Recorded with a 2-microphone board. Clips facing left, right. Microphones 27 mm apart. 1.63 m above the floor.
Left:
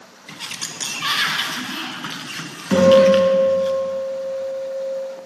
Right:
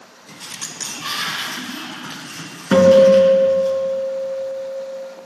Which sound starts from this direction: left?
A sliding door, at 0.3 s.